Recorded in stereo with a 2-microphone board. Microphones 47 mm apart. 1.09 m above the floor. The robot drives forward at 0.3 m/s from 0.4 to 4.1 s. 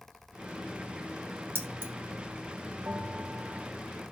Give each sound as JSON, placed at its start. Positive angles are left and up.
{"t": 1.6, "sound": "keys jangling", "side_deg": -50, "distance_m": 2.0}
{"t": 2.9, "sound": "a bell", "side_deg": -55, "distance_m": 1.5}